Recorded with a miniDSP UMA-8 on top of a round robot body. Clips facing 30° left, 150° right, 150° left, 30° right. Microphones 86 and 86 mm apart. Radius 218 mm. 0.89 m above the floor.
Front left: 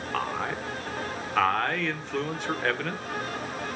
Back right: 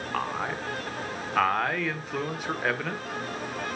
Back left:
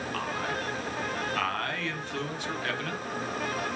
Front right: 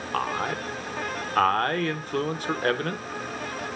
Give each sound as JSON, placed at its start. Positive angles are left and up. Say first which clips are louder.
{"t": 0.1, "sound": "a man speaking", "louder": "even, front right 7 dB", "azimuth_deg": -65, "distance_m": 1.5}